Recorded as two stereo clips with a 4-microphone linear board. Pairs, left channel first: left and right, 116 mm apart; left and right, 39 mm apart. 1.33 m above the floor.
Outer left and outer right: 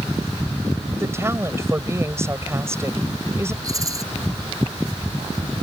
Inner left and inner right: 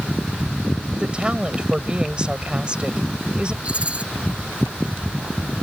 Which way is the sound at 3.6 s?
30° right (ahead or behind).